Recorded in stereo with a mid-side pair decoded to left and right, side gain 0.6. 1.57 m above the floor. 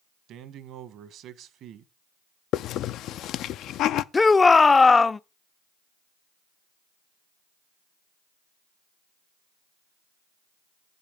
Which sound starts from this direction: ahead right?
A man speaking, at 0.3 s.